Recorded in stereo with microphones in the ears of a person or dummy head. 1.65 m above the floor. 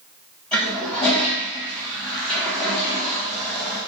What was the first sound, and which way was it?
A toilet flushing, 5° left (ahead or behind).